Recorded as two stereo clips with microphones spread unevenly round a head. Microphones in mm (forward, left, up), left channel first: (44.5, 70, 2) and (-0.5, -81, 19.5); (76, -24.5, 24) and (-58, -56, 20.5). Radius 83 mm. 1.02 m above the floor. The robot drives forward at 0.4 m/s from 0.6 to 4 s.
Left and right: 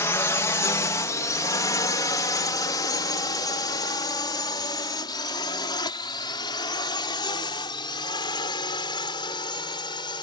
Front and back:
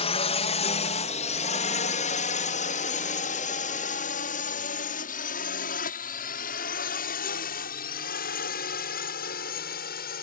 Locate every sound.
0.0 s a drone: 10° left